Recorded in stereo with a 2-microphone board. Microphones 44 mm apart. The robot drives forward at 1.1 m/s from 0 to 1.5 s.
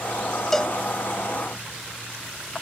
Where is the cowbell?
10° left (ahead or behind), 0.7 m.